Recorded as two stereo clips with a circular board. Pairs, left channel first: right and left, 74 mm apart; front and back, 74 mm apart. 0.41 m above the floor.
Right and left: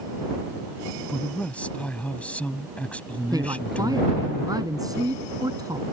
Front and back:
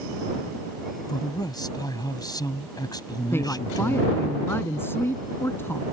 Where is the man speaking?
20° right.